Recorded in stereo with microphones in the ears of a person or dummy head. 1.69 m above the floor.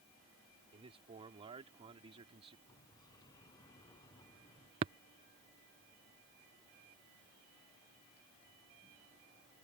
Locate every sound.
0.7 s a man speaking: 30° right (ahead or behind)
2.7 s a sliding door: 20° left (ahead or behind)
4.8 s tapping: 20° right (ahead or behind)